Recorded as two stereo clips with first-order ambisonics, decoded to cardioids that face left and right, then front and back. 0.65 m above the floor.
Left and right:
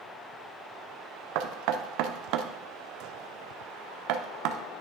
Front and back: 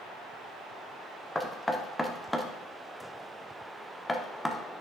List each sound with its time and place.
1.4 s knocking: 85° right, 0.7 m